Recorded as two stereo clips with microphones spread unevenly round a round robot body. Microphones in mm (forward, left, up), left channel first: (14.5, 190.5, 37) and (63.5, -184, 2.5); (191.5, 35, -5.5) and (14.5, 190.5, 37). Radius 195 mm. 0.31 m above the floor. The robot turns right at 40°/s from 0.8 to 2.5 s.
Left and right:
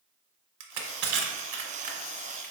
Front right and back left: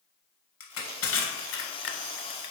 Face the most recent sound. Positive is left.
turn(degrees=15)